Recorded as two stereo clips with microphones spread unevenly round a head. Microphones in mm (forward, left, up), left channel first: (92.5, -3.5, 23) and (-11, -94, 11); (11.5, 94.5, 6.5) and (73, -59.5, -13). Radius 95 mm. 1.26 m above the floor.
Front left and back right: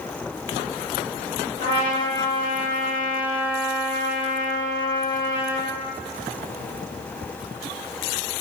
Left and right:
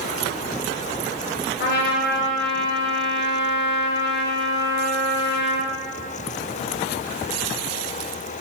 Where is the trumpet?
110° left, 0.5 m.